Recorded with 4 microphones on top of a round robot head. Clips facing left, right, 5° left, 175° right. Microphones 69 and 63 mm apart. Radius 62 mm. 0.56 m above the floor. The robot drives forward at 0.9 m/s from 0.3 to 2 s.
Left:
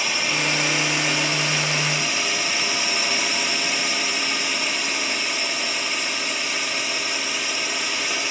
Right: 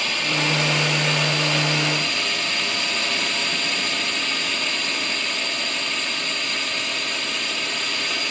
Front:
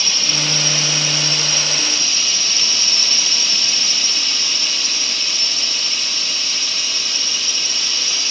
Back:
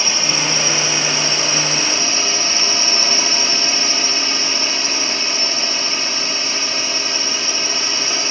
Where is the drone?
170° left.